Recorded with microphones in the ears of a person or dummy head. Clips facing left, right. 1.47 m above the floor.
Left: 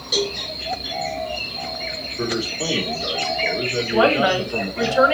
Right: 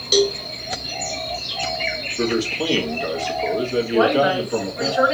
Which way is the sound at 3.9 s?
50° left (ahead or behind).